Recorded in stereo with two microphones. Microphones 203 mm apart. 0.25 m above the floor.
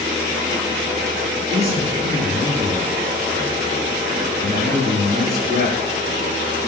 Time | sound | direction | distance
1.5 | a man speaking | 35° right (ahead or behind) | 4.5 m